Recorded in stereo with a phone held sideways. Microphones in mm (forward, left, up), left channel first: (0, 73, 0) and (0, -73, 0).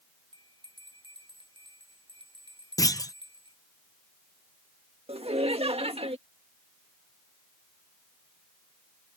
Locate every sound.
0.3 s a bell: 35° right (ahead or behind)
2.8 s a clunk: 25° left (ahead or behind)
5.1 s laughter: 45° right (ahead or behind)